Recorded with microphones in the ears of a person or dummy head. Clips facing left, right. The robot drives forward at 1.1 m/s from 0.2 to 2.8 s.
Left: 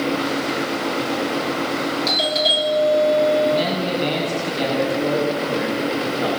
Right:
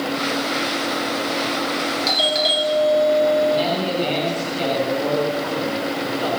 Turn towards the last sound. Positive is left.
turn(degrees=25)  # may be behind; listen again after turning